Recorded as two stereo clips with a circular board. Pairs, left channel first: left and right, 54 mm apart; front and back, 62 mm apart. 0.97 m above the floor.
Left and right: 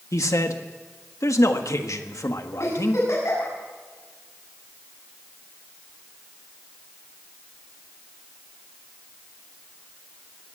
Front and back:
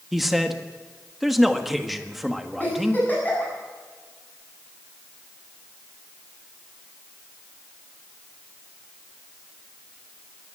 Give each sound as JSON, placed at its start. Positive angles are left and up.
{"t": 0.1, "sound": "a man speaking", "azimuth_deg": 95, "distance_m": 1.3}
{"t": 2.6, "sound": "a giggle", "azimuth_deg": 65, "distance_m": 7.5}